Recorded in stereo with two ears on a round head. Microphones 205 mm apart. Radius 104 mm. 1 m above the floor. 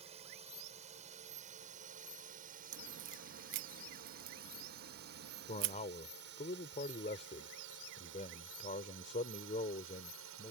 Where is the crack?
55° right (ahead or behind).